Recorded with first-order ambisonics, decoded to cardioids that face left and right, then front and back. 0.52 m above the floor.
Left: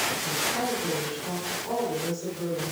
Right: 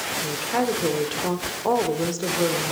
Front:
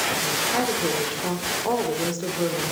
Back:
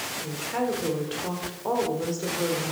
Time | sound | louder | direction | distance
0.2 | a woman speaking | right 3 dB, front 6 dB | 75° right | 1.6 m